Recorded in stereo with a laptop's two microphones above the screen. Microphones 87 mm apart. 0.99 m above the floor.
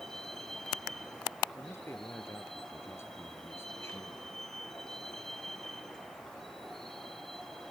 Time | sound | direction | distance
0.0 | a vehicle | centre (ahead or behind) | ?
1.6 | a man speaking | 30° left (ahead or behind) | ?